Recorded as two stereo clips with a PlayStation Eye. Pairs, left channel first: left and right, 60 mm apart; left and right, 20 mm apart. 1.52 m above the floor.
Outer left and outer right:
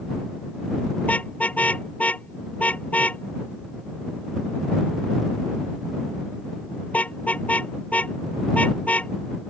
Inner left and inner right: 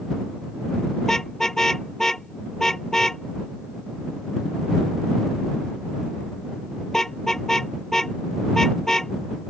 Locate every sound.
1.0 s a car horn: 25° left (ahead or behind)